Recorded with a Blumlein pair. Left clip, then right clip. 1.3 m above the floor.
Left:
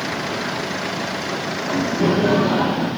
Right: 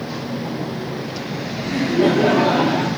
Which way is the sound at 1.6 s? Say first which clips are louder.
Right 4 dB; 65° right.